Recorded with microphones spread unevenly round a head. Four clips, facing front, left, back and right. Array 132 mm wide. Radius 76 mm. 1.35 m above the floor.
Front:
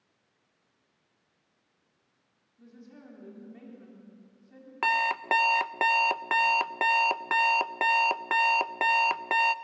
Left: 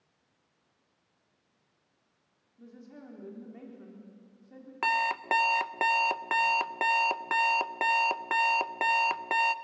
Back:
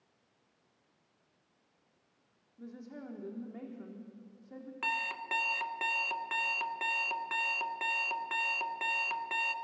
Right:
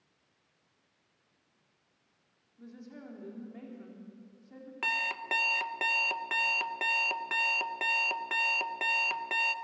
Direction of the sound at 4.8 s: 35° left.